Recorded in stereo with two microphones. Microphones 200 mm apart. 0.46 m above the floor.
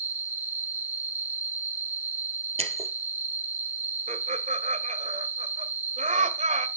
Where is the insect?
40° left (ahead or behind), 1.8 m.